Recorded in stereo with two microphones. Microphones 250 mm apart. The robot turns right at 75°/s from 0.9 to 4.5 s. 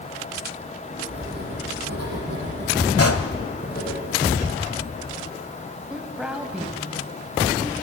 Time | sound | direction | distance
1.1 | writing | 160° right | 5.5 m
3.0 | a pop | 70° left (ahead or behind) | 1.1 m
5.9 | a woman speaking | 5° right (ahead or behind) | 2 m